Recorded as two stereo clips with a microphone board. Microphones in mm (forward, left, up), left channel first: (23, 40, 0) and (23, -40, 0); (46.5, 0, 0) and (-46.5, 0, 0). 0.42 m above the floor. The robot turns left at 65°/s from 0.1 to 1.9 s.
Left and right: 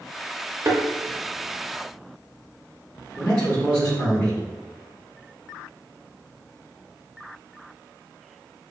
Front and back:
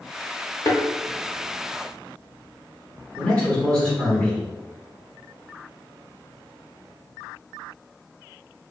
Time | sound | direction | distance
0.7 | a thud | 40° right | 0.7 m
3.2 | a man speaking | 55° left | 1.4 m